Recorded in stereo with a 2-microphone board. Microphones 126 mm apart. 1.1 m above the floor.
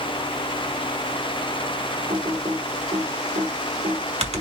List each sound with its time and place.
2.1 s typing on a keyboard: 55° right (ahead or behind), 1.2 m